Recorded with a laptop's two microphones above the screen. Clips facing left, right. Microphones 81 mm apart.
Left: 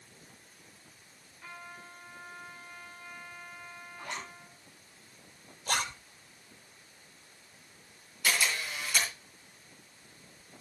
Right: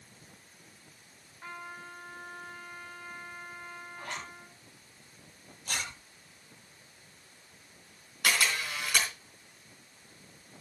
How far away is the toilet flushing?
I don't hear a toilet flushing.